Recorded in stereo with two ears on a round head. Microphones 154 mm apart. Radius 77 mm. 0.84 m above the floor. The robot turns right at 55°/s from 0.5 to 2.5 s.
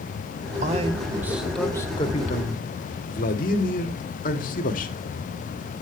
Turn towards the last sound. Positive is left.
turn(degrees=55)